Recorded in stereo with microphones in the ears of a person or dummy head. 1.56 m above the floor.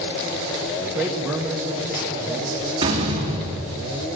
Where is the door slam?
25° right (ahead or behind), 2.5 m.